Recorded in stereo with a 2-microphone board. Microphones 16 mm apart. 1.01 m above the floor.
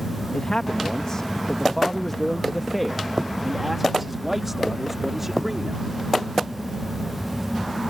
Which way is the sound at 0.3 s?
55° left (ahead or behind).